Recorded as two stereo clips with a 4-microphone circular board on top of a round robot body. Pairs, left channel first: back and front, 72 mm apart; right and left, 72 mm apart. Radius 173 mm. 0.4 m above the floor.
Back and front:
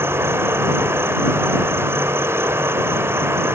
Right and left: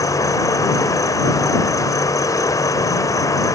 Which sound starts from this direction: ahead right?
An insect, at 0.0 s.